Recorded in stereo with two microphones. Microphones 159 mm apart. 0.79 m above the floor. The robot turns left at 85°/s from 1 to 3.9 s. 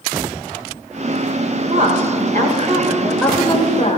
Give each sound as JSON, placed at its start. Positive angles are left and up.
{"t": 1.7, "sound": "a woman speaking", "azimuth_deg": -50, "distance_m": 3.5}